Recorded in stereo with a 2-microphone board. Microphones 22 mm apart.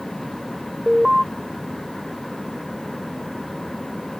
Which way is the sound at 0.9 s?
15° right (ahead or behind).